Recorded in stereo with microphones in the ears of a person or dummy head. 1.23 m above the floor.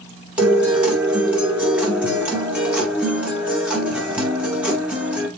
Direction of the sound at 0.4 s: 10° right (ahead or behind).